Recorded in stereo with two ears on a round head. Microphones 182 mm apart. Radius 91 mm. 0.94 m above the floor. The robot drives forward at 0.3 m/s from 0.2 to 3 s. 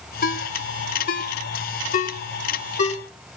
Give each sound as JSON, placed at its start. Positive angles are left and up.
{"t": 0.2, "sound": "a ringtone", "side_deg": 50, "distance_m": 3.0}